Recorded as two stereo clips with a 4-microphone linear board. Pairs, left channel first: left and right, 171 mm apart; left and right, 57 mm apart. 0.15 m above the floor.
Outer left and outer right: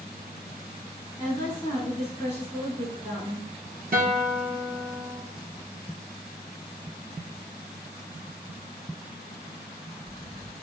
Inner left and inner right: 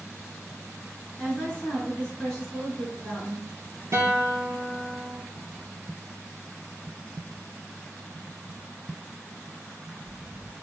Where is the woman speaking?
15° left (ahead or behind), 1.5 m.